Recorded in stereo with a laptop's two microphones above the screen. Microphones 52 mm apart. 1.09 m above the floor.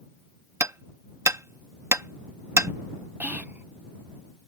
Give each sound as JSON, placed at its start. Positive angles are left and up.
{"t": 0.6, "sound": "hammering", "side_deg": -70}
{"t": 3.2, "sound": "whispering", "side_deg": -40}